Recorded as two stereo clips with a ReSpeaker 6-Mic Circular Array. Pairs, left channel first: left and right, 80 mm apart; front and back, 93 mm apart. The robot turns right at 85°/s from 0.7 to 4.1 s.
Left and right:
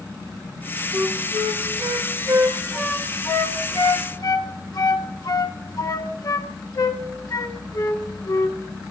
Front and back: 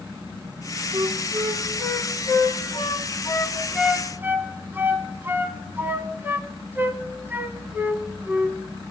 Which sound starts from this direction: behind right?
A flute, at 0.9 s.